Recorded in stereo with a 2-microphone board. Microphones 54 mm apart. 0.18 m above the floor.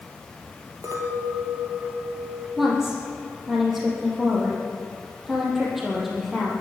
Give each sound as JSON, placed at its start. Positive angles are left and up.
{"t": 0.8, "sound": "a clink", "side_deg": -75, "distance_m": 2.5}
{"t": 2.6, "sound": "a woman speaking", "side_deg": -5, "distance_m": 5.0}